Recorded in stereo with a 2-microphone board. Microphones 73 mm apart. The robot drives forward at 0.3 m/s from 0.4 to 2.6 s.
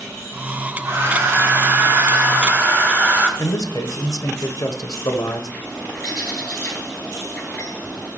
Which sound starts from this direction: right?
A hair dryer, at 0.8 s.